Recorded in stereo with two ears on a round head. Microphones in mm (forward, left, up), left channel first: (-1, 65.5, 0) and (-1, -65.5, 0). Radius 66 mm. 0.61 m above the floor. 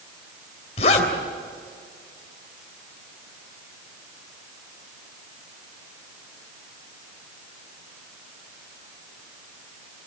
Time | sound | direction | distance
0.8 | a zipper | 45° left (ahead or behind) | 3 m